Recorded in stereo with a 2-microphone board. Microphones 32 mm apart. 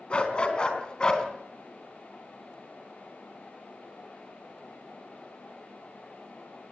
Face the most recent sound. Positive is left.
turn(degrees=25)  # may be behind; listen again after turning